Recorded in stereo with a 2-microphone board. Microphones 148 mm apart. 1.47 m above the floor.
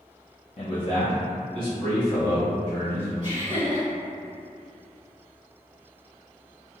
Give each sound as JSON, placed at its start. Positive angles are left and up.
{"t": 0.6, "sound": "a man speaking", "side_deg": 45, "distance_m": 0.5}
{"t": 3.2, "sound": "laughter", "side_deg": 45, "distance_m": 1.9}